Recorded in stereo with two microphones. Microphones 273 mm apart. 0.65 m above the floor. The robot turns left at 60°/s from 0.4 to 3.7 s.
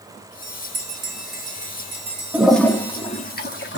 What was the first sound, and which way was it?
A bell, 40° right (ahead or behind).